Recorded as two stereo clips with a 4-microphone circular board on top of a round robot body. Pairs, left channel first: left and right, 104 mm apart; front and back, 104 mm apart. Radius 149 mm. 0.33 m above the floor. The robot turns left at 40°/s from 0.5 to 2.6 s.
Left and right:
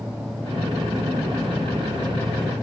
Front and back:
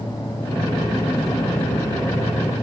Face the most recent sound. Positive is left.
No sound to turn to.